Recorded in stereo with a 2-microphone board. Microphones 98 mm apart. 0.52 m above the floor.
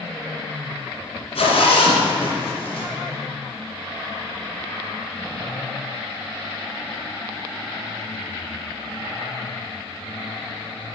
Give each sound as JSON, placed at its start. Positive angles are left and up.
{"t": 1.4, "sound": "a zipper", "side_deg": 85, "distance_m": 2.5}